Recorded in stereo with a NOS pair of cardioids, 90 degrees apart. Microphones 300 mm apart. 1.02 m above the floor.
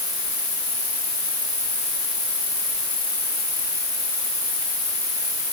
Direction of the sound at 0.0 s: 25° left.